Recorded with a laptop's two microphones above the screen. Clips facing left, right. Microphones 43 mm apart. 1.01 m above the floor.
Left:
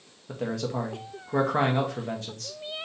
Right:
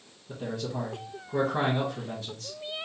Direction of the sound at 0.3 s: 70° left (ahead or behind).